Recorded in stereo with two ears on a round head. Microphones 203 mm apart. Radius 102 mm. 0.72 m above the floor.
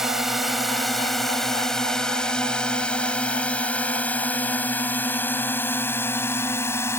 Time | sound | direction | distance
0.0 | a drone | centre (ahead or behind) | ?